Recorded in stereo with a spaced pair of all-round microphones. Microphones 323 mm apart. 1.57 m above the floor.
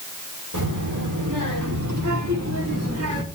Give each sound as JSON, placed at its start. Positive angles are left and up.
{"t": 0.5, "sound": "a child speaking", "side_deg": -75, "distance_m": 4.0}